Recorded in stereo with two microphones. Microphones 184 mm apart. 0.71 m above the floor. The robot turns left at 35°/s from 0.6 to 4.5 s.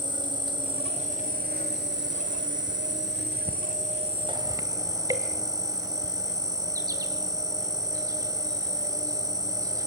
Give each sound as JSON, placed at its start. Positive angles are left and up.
{"t": 0.0, "sound": "an insect", "azimuth_deg": -25, "distance_m": 1.7}